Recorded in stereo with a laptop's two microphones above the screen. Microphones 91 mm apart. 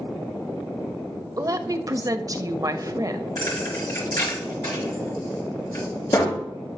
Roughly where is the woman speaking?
Right.